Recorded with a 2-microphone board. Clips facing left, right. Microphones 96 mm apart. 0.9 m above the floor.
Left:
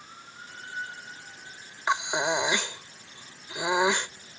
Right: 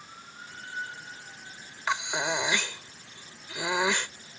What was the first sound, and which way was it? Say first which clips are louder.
Breathing: left 3 dB; 20° left (ahead or behind).